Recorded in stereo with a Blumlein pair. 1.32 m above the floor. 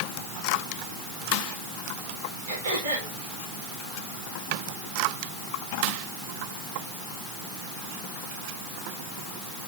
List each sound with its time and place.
2.5 s throat clearing: 65° right, 6.5 m